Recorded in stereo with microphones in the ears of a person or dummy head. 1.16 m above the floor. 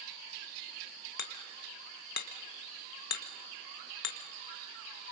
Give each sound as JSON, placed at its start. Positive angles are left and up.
{"t": 1.2, "sound": "hammering", "side_deg": 55, "distance_m": 1.5}